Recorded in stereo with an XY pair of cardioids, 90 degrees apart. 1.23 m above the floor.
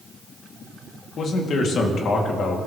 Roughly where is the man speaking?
Left.